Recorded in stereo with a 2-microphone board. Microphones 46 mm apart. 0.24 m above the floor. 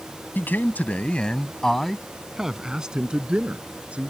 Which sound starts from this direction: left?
A man speaking, at 0.3 s.